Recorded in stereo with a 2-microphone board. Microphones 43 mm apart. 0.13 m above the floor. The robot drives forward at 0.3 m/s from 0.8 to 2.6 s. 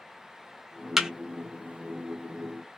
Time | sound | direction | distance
1.0 | a thud | 10° right (ahead or behind) | 0.5 m